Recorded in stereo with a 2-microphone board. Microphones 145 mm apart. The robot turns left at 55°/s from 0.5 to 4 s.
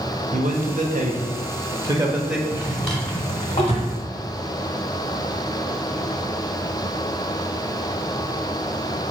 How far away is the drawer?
About 1.2 m.